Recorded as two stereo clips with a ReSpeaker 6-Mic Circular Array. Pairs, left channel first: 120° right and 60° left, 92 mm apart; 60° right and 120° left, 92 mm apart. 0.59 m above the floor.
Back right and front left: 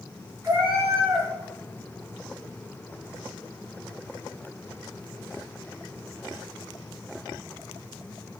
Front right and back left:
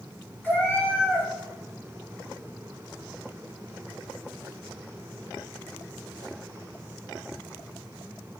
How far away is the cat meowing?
About 1.0 m.